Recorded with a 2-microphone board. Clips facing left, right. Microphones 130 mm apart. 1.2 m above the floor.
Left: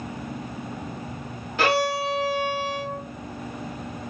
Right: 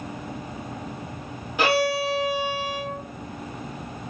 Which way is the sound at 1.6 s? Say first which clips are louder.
Right 1 dB; 15° right (ahead or behind).